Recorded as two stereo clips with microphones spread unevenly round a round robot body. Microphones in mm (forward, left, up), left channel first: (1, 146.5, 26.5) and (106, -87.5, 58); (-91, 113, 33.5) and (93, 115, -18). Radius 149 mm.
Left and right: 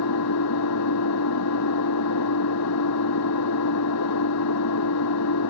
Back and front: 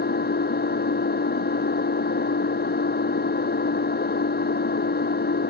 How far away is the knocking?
I don't hear knocking.